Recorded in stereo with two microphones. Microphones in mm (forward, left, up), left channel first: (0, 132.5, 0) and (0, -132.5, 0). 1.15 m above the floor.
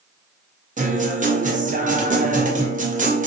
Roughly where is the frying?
I don't hear frying.